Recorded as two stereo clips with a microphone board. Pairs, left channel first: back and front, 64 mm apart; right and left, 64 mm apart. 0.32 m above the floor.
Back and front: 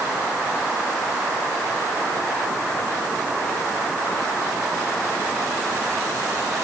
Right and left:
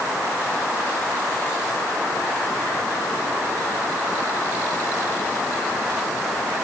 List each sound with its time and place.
Only background noise.